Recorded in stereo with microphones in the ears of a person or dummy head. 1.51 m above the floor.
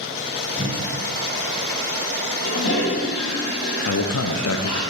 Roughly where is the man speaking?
Left.